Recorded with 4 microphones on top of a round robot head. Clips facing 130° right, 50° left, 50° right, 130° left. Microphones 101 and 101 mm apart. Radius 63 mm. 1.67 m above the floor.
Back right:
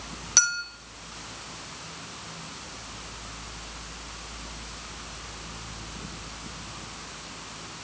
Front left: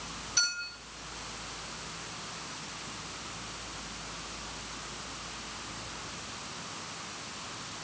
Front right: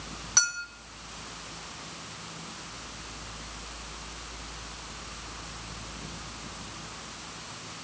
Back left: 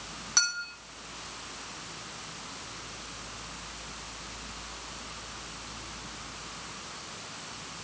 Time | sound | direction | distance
0.4 | a clink | 140° right | 3 m